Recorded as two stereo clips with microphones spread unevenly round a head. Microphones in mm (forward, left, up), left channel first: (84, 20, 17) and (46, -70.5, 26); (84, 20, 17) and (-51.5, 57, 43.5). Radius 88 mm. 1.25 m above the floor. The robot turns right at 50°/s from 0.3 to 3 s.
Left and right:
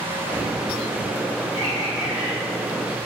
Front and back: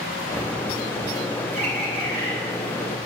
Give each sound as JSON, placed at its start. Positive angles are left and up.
{"t": 1.6, "sound": "a bird", "azimuth_deg": 145, "distance_m": 2.5}